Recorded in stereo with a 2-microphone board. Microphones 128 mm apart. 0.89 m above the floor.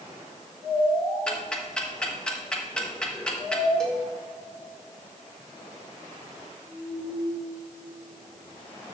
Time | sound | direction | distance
1.3 | ticking | 5° left (ahead or behind) | 1.1 m
3.8 | a cowbell | 5° left (ahead or behind) | 1.3 m